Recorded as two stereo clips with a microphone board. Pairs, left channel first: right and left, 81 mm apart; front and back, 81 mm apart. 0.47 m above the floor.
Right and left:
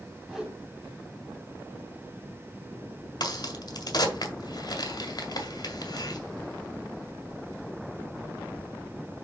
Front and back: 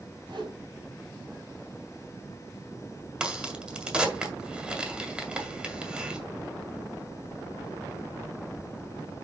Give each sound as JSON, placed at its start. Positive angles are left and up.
{"t": 0.3, "sound": "a whoosh", "azimuth_deg": 175, "distance_m": 3.0}
{"t": 3.2, "sound": "a crack", "azimuth_deg": -100, "distance_m": 1.7}